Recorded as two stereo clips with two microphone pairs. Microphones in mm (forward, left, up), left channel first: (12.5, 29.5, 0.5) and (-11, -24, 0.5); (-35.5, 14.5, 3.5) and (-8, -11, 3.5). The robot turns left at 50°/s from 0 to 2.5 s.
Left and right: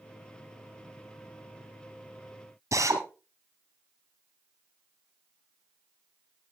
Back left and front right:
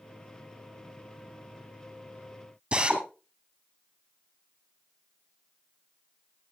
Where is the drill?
100° right, 2.5 m.